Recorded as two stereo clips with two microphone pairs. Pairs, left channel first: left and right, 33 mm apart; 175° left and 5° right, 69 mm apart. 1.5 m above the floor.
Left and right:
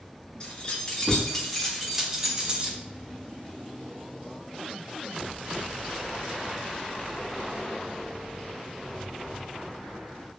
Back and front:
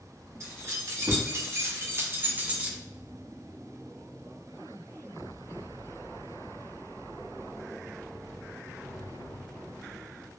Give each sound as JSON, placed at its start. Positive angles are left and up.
{"t": 0.4, "sound": "keys jangling", "azimuth_deg": 35, "distance_m": 1.4}